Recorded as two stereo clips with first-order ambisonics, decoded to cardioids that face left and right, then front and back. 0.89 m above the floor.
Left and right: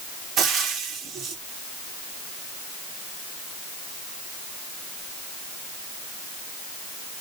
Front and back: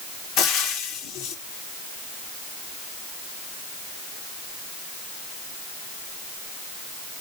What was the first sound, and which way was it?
Frying, 30° right.